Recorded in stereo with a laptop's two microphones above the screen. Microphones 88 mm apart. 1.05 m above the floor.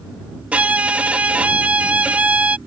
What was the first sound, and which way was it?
A violin, 15° right (ahead or behind).